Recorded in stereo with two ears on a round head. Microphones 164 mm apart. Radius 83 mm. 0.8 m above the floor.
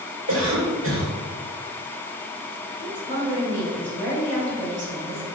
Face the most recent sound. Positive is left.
turn(degrees=-65)  # may be behind; listen again after turning